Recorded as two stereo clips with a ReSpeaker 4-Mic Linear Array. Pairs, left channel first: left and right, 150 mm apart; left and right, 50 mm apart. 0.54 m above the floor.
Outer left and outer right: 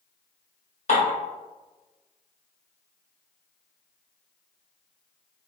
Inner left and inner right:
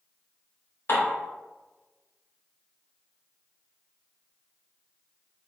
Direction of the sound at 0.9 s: 50° left (ahead or behind).